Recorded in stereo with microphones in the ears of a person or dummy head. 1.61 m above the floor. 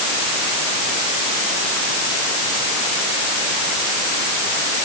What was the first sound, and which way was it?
Only background noise.